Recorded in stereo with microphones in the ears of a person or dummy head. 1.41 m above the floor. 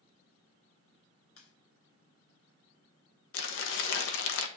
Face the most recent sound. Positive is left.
turn(degrees=70)  # may be behind; listen again after turning